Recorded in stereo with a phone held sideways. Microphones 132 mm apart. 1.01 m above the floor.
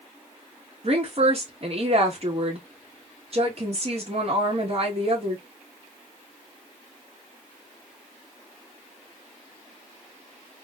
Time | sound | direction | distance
0.8 | a woman speaking | 45° right (ahead or behind) | 1.7 m